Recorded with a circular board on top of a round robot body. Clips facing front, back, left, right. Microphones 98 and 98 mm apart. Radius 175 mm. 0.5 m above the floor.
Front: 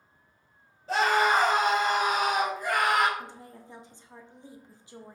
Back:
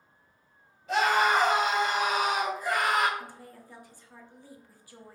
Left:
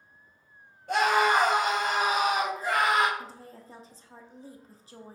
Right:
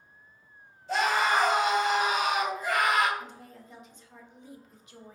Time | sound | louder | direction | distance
0.9 | a scream | front 1 dB, left 3 dB | 55° left | 2 m
3.2 | a woman speaking | front 1 dB, left 1 dB | 55° left | 0.8 m